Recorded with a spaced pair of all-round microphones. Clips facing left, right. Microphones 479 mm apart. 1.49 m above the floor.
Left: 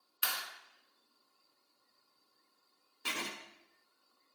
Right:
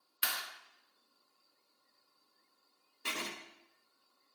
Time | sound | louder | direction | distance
0.2 | a clap | even | 40° right (ahead or behind) | 1.7 m
3.0 | writing | even | 5° left (ahead or behind) | 1.3 m